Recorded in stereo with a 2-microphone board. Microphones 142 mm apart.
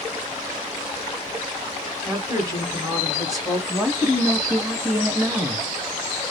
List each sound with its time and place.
2.0 s a woman speaking: 25° right (ahead or behind), 1.3 m
3.7 s a woman speaking: 15° right (ahead or behind), 1.1 m